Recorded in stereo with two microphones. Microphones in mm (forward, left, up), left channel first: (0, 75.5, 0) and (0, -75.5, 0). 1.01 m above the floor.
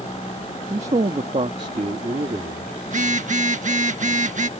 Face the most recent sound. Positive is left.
turn(degrees=-55)  # may be behind; listen again after turning